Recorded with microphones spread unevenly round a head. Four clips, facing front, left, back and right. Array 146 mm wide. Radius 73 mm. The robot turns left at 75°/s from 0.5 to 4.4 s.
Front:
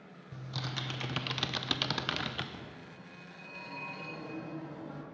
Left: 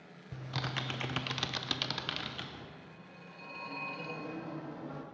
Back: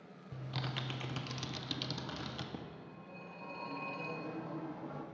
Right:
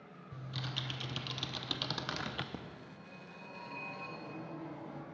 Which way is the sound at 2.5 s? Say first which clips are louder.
Right 2 dB, even; 110° right.